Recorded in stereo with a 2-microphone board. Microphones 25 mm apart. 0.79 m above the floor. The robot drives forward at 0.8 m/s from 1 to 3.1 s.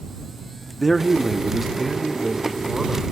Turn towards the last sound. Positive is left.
turn(degrees=0)  # may be behind; listen again after turning